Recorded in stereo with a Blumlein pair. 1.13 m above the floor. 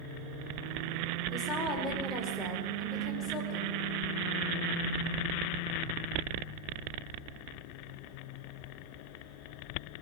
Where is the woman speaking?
20° left, 4.5 m.